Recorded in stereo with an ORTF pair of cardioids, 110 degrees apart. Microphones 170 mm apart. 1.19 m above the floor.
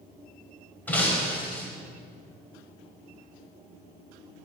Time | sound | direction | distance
0.9 | breaking glass | 10° left | 4 m